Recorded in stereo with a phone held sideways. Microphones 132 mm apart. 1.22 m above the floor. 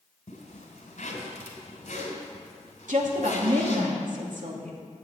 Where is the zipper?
60° left (ahead or behind), 3.5 m.